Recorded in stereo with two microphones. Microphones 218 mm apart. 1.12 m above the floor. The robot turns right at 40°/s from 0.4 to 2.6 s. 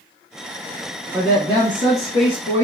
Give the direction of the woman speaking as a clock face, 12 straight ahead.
11 o'clock.